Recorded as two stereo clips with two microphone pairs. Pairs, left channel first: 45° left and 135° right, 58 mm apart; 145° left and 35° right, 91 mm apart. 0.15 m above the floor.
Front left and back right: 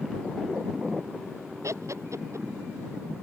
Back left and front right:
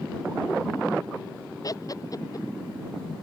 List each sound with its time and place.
1.6 s laughter: 165° right